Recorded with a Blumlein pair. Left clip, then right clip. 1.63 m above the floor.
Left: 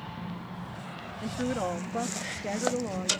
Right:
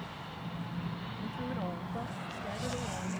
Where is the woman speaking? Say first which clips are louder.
Left 9 dB; 25° left.